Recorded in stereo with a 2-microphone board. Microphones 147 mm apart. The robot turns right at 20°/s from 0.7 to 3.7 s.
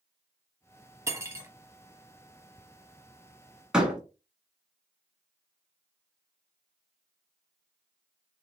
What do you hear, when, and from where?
1.1 s cutlery clinking: 20° right (ahead or behind), 0.6 m
3.7 s a door slam: 5° right (ahead or behind), 1.2 m